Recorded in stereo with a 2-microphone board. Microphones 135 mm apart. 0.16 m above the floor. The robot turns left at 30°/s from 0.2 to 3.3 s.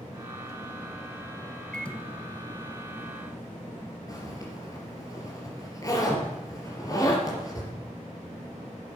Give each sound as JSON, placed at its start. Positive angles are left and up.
{"t": 1.7, "sound": "a microwave", "side_deg": 5, "distance_m": 1.2}
{"t": 4.1, "sound": "a zipper", "side_deg": 25, "distance_m": 4.0}